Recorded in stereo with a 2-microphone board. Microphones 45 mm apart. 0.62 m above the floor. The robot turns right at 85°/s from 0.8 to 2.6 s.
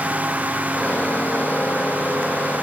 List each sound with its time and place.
Only background noise.